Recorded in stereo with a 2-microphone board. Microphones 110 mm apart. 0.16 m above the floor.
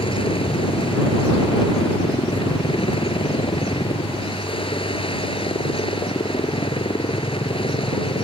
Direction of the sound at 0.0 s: 55° left (ahead or behind).